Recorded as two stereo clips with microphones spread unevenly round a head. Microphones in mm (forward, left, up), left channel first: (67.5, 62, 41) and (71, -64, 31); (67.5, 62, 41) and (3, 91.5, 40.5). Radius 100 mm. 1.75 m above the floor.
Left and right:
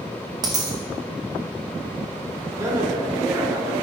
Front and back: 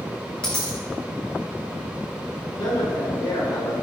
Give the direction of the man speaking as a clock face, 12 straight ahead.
1 o'clock.